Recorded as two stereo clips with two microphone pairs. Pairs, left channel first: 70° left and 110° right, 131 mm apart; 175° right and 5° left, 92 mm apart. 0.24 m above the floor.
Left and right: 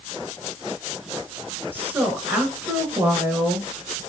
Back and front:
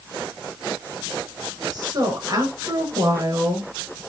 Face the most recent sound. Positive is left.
turn(degrees=-40)